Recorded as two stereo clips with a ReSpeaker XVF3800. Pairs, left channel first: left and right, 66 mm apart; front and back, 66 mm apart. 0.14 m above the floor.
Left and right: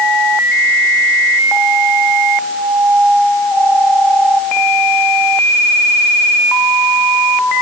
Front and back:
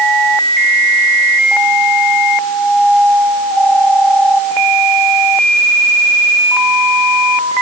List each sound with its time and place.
Only background noise.